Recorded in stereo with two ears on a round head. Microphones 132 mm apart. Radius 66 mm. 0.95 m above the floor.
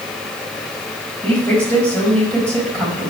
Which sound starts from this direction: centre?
A woman speaking, at 1.2 s.